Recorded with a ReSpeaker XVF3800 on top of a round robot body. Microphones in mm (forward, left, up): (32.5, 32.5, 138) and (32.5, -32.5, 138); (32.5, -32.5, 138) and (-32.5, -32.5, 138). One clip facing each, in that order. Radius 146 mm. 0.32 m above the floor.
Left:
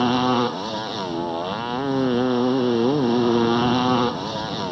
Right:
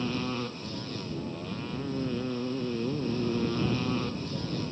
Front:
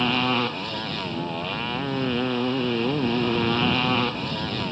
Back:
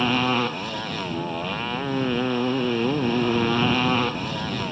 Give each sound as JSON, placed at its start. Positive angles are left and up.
{"t": 0.0, "sound": "a motorcycle", "azimuth_deg": 95}